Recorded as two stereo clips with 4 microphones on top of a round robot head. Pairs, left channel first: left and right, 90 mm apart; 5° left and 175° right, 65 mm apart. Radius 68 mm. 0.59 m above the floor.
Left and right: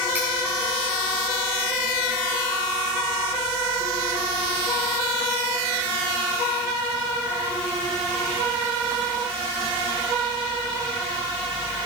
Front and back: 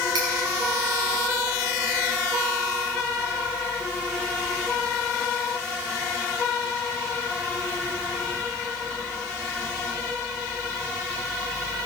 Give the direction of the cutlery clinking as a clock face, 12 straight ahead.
5 o'clock.